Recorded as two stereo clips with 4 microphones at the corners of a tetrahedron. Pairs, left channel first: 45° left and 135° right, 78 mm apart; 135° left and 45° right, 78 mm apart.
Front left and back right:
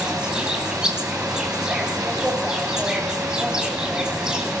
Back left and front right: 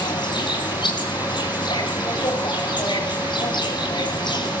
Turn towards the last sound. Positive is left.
turn(degrees=145)